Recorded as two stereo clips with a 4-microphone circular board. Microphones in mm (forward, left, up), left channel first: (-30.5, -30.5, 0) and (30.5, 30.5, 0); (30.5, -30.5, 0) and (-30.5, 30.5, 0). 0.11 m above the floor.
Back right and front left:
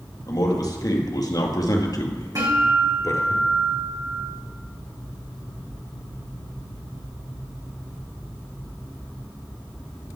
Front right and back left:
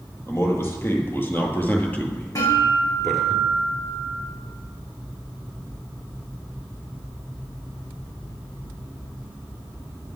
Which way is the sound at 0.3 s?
100° right.